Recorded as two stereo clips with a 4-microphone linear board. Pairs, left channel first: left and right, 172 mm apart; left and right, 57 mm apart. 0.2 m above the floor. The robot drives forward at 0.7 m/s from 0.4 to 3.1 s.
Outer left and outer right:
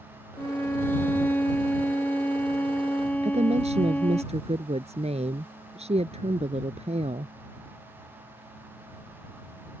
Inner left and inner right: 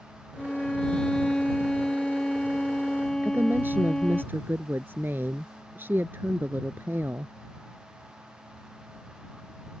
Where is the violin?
15° left (ahead or behind); by 4.2 s 10° left (ahead or behind).